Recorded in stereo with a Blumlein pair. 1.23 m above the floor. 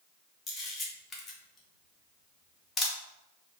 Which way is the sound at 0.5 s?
15° left.